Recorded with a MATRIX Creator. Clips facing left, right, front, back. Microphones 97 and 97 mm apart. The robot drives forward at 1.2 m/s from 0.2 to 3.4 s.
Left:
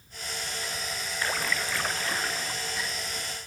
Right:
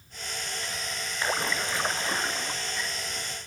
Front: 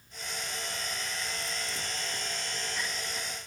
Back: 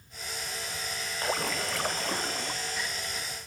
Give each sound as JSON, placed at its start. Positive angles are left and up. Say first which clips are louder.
{"t": 1.2, "sound": "a splash", "louder": "right 2 dB, back 7 dB", "azimuth_deg": -160}